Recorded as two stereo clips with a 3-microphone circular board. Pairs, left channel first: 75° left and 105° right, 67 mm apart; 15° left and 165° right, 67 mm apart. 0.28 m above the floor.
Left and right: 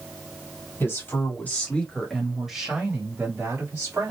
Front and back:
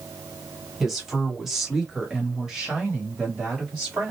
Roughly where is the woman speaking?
Left.